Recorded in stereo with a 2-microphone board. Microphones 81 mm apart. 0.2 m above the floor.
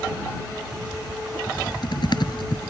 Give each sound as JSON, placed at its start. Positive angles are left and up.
{"t": 1.5, "sound": "typing on a keyboard", "side_deg": 70}